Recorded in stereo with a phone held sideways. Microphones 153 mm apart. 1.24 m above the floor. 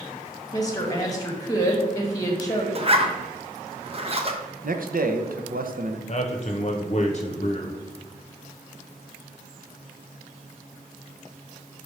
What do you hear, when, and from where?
0.5 s a woman speaking: 25° left (ahead or behind), 1.7 m
2.8 s a zipper: 40° right (ahead or behind), 0.9 m
4.6 s a man speaking: 70° right (ahead or behind), 0.8 m
6.1 s a man speaking: 50° left (ahead or behind), 0.8 m